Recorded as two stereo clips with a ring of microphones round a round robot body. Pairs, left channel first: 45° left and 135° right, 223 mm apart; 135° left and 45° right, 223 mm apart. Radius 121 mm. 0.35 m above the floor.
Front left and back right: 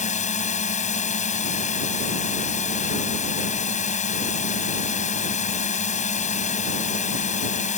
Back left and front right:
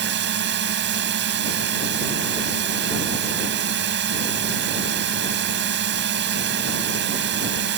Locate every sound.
0.0 s a drone: 10° right